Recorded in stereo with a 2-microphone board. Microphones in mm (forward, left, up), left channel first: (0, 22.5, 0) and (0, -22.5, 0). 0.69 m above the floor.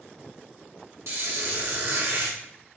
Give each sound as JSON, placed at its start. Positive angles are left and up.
{"t": 1.1, "sound": "a squeak", "side_deg": -70, "distance_m": 1.0}